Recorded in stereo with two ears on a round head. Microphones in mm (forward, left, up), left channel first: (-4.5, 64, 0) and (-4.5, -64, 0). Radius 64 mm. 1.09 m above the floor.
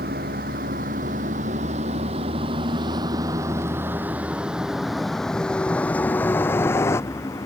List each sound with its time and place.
0.0 s a vehicle: 70° right (ahead or behind); by 7.5 s 20° left (ahead or behind)